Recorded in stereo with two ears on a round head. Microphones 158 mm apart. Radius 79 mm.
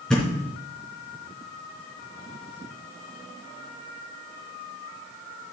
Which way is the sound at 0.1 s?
5° left (ahead or behind).